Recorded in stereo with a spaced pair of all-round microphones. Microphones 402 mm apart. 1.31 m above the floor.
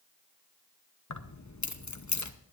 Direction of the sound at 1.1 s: 45° left (ahead or behind).